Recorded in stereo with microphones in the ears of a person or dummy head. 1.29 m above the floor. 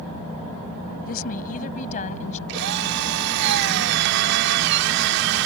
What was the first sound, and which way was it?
A woman speaking, 50° left (ahead or behind).